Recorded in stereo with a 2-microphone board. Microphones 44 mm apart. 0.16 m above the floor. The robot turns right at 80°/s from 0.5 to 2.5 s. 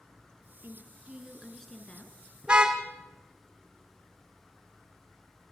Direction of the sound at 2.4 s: 15° right (ahead or behind).